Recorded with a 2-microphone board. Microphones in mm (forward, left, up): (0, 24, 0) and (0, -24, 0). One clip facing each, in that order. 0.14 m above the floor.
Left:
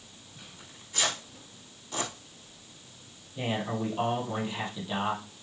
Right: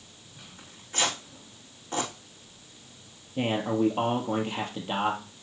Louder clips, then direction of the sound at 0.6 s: Right 2 dB; 40° right (ahead or behind).